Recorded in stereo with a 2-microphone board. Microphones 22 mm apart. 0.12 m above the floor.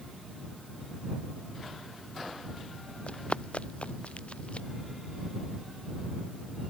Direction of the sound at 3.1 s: 65° left (ahead or behind).